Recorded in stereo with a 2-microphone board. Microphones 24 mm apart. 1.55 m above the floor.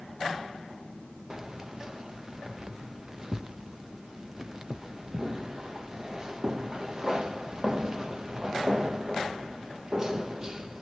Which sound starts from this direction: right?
Keys jangling, at 1.3 s.